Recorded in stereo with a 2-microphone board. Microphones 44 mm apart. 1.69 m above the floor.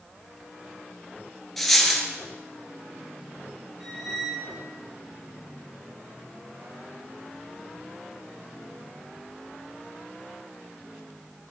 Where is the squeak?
10° right (ahead or behind), 3 m.